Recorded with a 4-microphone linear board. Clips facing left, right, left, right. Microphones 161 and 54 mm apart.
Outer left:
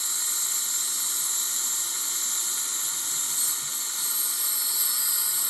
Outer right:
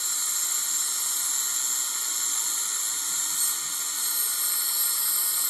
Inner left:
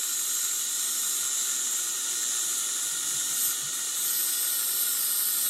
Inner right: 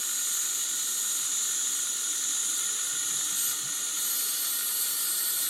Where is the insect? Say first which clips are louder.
Even, even; 75° left (ahead or behind), 1.0 m.